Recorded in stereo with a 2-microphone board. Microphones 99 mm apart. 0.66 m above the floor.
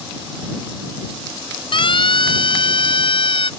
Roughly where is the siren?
Left.